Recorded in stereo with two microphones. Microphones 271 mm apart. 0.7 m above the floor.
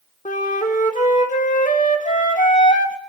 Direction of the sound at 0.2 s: 30° left (ahead or behind).